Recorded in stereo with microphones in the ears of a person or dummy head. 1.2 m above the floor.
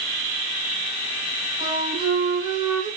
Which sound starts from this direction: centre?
A flute, at 1.6 s.